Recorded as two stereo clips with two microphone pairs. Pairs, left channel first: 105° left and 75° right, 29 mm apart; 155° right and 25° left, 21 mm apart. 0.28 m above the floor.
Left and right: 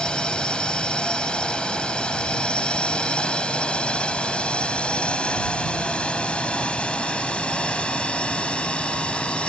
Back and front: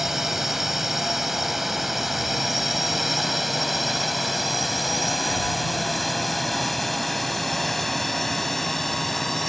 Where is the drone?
85° left; by 9.5 s 125° left.